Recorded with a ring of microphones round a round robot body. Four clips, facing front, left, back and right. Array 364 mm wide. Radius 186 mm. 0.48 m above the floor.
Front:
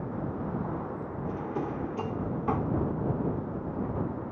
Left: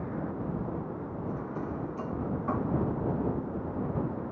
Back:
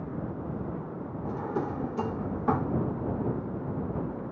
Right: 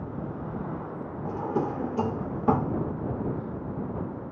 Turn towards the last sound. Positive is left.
turn(degrees=-100)